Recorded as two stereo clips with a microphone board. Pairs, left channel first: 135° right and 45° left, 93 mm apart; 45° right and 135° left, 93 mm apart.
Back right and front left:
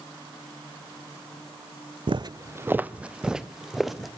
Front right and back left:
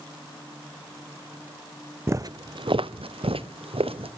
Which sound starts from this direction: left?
Footsteps, at 2.1 s.